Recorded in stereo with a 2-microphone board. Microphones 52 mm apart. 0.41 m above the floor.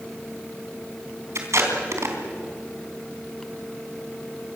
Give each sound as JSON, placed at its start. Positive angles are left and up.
{"t": 1.4, "sound": "tape being pulled", "side_deg": -70, "distance_m": 3.5}